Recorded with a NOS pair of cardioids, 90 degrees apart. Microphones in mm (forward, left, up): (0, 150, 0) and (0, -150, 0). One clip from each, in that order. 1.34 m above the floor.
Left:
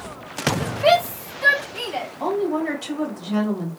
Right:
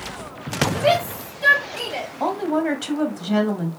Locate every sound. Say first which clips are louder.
0.8 s a shout: left 4 dB; 35° left, 1.9 m; by 2.1 s 5° left, 2.5 m
2.2 s a woman speaking: right 1 dB; 20° right, 1.4 m